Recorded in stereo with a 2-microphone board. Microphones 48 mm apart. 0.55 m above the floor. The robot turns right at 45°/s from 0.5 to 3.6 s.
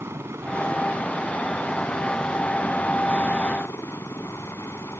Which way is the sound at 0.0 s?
65° right.